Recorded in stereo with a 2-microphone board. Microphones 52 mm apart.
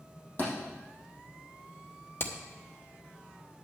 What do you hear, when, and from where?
0.4 s a thud: 40° left (ahead or behind), 5 m
2.2 s hammering: 50° left (ahead or behind), 1.1 m